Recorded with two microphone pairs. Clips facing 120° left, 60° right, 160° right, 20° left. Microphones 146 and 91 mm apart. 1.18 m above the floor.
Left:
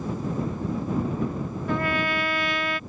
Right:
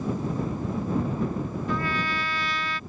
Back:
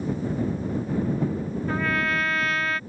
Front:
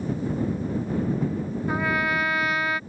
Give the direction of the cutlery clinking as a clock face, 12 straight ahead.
No cutlery clinking in this recording.